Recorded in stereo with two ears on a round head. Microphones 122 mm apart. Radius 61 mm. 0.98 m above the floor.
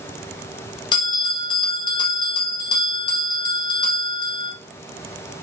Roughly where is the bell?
Left.